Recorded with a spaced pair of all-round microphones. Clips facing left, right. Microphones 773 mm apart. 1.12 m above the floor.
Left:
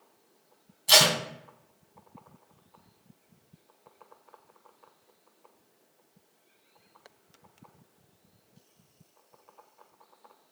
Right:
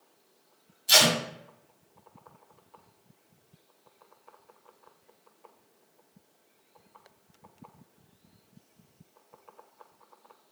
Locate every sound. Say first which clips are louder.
0.9 s tape being pulled: even; 65° left (ahead or behind), 0.9 m